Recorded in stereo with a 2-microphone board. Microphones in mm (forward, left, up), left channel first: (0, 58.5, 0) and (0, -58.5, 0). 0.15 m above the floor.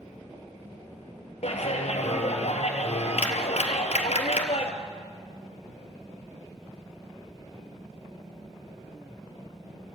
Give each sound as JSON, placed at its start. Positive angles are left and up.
{"t": 1.4, "sound": "a clap", "side_deg": 65, "distance_m": 2.0}